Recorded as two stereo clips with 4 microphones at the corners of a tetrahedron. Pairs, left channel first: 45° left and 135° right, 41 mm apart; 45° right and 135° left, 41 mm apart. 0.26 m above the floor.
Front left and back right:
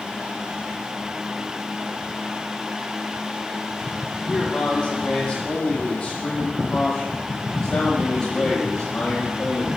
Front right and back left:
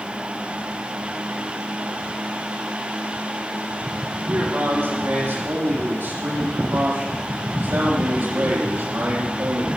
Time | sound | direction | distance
4.3 | a man speaking | 120° left | 9.5 m